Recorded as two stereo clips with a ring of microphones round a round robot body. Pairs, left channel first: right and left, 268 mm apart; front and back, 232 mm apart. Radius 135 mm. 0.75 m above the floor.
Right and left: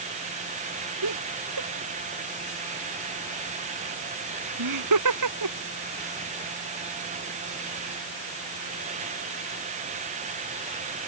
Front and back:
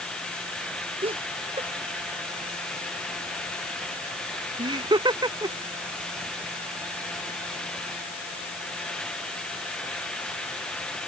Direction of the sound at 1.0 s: 115° left.